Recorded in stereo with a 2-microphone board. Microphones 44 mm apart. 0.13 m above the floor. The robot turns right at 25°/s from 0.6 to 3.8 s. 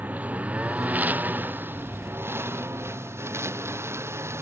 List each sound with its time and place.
0.0 s a lawn mower: 40° right (ahead or behind); by 4.4 s 85° right